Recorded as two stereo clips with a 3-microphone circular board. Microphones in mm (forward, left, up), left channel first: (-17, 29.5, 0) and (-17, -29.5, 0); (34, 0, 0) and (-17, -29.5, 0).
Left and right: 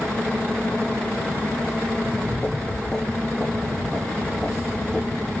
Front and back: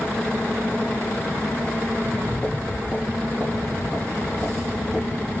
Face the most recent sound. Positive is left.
turn(degrees=-10)